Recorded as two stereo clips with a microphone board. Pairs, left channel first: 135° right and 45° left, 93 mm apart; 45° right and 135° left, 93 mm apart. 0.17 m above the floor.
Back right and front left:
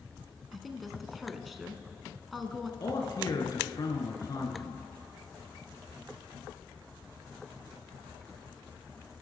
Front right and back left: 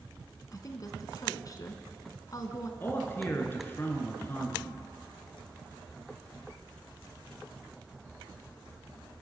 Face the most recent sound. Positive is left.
turn(degrees=-105)